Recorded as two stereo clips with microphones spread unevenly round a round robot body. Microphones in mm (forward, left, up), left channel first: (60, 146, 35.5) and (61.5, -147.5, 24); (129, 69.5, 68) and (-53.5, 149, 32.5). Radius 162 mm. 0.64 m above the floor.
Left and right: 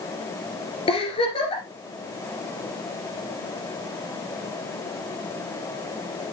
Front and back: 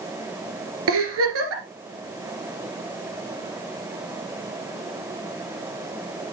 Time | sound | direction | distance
0.9 | a giggle | 165° left | 2 m